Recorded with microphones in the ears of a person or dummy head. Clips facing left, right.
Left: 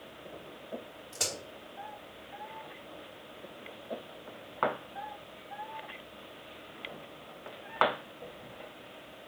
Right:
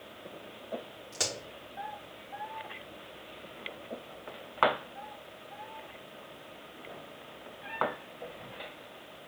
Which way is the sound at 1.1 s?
40° right (ahead or behind).